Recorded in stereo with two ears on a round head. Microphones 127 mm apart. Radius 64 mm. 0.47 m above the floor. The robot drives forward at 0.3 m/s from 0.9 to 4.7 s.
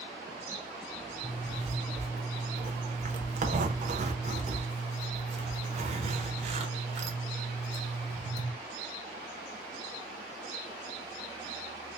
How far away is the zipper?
About 1.2 m.